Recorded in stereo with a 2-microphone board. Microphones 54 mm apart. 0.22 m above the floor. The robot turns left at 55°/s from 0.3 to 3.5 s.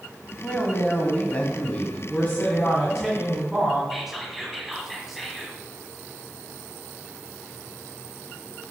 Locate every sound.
0.4 s a man speaking: 20° left (ahead or behind), 1.0 m
2.1 s a man speaking: 55° left, 1.8 m; by 3.8 s 25° right, 1.8 m
3.9 s whispering: 5° right (ahead or behind), 1.5 m